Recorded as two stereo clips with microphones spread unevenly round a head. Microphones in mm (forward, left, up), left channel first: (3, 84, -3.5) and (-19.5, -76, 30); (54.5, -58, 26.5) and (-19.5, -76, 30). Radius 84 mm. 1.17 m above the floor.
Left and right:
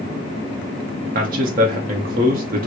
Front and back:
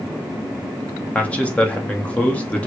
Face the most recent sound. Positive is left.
turn(degrees=-55)